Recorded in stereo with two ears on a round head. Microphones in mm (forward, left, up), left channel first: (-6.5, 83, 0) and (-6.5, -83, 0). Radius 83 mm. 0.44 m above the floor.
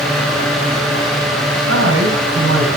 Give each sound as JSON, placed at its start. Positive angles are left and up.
{"t": 1.7, "sound": "a man speaking", "side_deg": -70, "distance_m": 3.5}